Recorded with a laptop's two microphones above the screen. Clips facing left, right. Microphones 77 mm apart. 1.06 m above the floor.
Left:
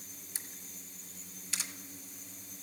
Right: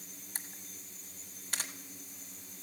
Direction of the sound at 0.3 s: 45° right (ahead or behind).